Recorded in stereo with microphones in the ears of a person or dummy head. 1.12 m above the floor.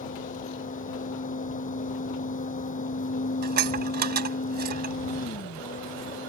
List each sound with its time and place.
0.0 s a fan: 35° left (ahead or behind)
3.4 s dishes clattering: 55° right (ahead or behind)